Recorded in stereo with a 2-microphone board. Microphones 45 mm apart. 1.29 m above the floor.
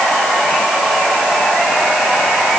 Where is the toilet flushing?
No toilet flushing in this recording.